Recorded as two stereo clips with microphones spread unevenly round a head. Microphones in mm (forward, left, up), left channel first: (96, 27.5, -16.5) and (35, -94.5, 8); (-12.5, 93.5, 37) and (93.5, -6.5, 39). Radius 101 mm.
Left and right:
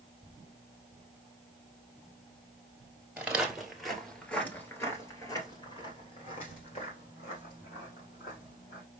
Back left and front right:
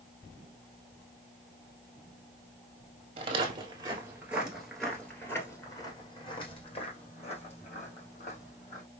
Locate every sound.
3.2 s footsteps: 65° right, 1.6 m; by 8.8 s 110° left, 3 m